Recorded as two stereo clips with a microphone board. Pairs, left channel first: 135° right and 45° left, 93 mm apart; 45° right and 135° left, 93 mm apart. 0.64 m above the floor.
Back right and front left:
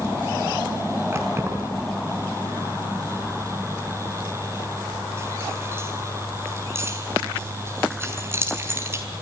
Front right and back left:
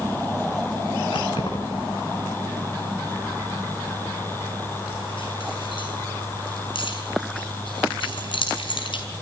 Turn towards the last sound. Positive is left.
turn(degrees=-20)